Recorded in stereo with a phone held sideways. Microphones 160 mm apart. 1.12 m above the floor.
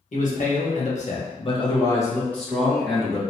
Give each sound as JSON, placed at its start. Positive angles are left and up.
{"t": 0.1, "sound": "a man speaking", "side_deg": 55, "distance_m": 1.1}